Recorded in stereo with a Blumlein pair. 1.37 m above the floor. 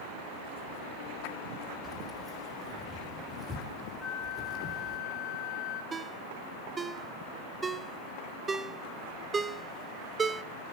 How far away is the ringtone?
About 0.7 m.